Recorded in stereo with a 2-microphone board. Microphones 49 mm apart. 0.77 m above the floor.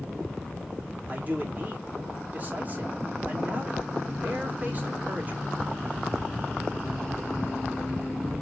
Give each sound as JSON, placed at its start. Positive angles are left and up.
{"t": 1.1, "sound": "a man speaking", "side_deg": -35, "distance_m": 1.9}